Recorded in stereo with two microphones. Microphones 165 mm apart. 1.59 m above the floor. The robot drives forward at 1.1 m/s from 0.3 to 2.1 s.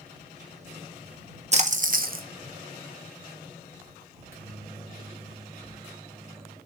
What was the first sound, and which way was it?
A splash, 45° right (ahead or behind).